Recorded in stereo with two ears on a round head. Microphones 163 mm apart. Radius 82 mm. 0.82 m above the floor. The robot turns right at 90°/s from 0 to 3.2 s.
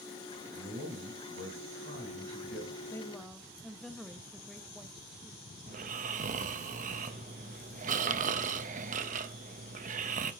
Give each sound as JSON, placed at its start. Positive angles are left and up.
{"t": 0.5, "sound": "a man speaking", "azimuth_deg": 175, "distance_m": 4.5}
{"t": 2.8, "sound": "a woman speaking", "azimuth_deg": 150, "distance_m": 0.9}
{"t": 5.7, "sound": "snoring", "side_deg": -40, "distance_m": 0.6}